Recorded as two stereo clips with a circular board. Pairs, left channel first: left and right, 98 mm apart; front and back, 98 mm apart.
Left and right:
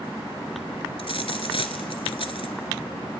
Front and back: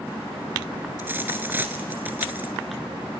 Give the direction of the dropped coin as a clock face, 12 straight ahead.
8 o'clock.